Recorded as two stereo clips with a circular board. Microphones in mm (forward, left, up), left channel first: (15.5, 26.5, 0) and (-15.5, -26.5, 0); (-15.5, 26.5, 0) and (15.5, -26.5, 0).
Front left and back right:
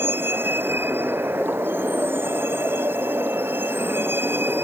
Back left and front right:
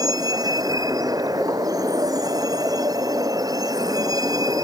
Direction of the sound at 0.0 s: 65° right.